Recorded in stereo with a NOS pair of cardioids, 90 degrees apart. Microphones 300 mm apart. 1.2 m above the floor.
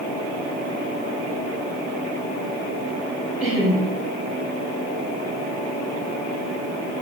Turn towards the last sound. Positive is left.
turn(degrees=-5)